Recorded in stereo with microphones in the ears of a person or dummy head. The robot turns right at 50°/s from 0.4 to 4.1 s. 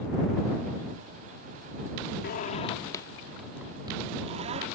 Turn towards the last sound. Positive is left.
turn(degrees=-30)  # may be behind; listen again after turning